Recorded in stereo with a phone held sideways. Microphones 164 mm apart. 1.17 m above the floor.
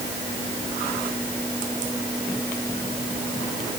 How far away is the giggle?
No giggle in this recording.